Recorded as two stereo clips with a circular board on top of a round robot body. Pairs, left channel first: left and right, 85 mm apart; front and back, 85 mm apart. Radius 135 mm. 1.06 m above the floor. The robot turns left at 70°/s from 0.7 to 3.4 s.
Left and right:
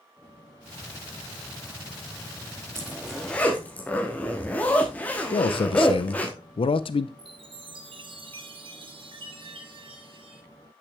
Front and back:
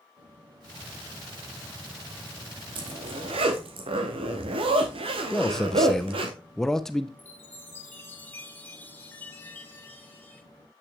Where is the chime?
70° right, 1.3 m.